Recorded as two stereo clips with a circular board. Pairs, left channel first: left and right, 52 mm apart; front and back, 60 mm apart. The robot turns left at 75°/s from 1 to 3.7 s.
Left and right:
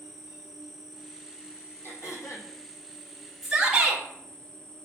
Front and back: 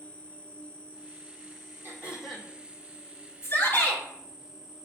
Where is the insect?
20° right, 0.9 m; by 4.8 s 135° left, 0.9 m.